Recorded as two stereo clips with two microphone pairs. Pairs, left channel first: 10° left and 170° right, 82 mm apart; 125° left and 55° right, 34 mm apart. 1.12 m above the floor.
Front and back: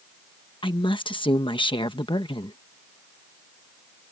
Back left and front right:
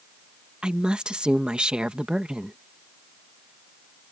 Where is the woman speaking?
10° left.